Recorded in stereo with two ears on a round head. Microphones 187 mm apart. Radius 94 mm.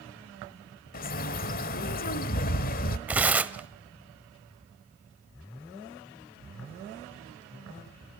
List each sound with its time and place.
0.9 s a bird: 45° left (ahead or behind), 1.2 m
3.1 s tearing paper: 5° right (ahead or behind), 0.9 m